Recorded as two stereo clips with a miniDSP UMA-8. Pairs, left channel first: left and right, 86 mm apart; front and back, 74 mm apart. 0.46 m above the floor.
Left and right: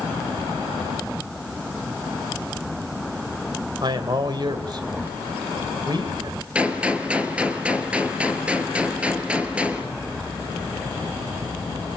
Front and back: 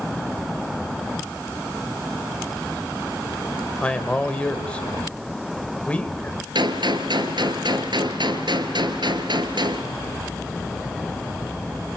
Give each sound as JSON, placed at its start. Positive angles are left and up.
{"t": 3.8, "sound": "a man speaking", "azimuth_deg": -75, "distance_m": 2.0}
{"t": 6.5, "sound": "a gunshot", "azimuth_deg": -170, "distance_m": 2.5}